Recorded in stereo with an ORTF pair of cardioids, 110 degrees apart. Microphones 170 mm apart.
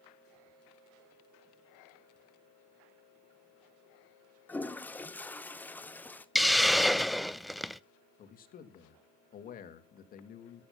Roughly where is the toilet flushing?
Ahead.